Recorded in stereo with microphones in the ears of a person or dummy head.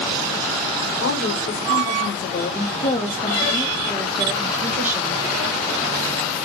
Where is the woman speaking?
60° left (ahead or behind), 2 m; by 5.2 s 15° right (ahead or behind), 1.8 m.